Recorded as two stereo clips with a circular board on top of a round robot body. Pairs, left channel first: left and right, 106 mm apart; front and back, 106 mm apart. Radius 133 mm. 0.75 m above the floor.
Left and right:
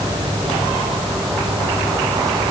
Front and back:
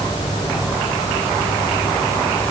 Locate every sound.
Only background noise.